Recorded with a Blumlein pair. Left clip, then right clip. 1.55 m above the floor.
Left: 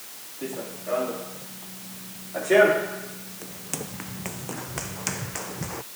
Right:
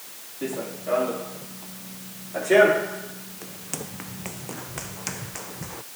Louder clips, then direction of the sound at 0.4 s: Right 3 dB; 10° right.